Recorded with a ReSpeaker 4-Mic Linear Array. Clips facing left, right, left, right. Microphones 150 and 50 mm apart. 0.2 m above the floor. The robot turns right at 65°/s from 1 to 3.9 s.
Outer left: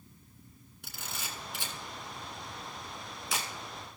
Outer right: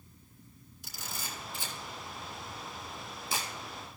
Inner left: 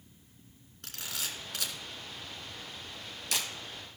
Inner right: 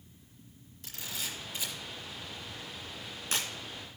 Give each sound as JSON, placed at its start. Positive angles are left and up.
{"t": 0.8, "sound": "a camera shutter", "side_deg": 65, "distance_m": 2.0}